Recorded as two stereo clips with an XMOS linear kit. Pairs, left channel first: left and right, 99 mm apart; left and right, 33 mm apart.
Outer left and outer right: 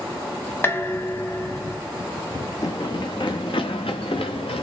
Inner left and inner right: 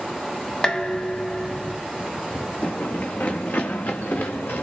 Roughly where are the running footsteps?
Left.